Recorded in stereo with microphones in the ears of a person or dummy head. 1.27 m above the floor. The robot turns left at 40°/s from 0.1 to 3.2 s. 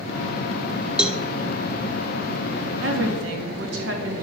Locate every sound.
1.0 s a cowbell: 5° right (ahead or behind), 0.5 m; by 1.2 s 5° left (ahead or behind), 0.5 m
2.8 s a woman speaking: 80° right, 2.5 m; by 4.2 s 70° right (ahead or behind), 2.5 m